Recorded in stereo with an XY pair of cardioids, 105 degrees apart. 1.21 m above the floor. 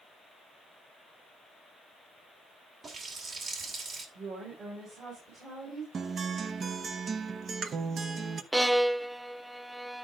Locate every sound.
2.8 s a running tap: 50° right, 2.5 m
4.2 s a woman speaking: 55° right, 5.5 m
5.9 s a guitar: 50° right, 0.8 m
8.5 s a violin: 10° right, 0.5 m